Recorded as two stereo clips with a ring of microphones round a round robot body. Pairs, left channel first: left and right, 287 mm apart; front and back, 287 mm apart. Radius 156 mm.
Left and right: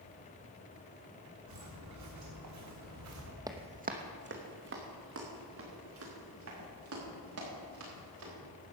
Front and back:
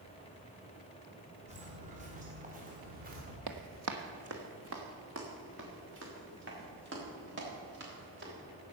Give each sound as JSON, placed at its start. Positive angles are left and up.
{"t": 1.5, "sound": "footsteps", "azimuth_deg": -115, "distance_m": 4.0}
{"t": 3.5, "sound": "running footsteps", "azimuth_deg": -165, "distance_m": 1.1}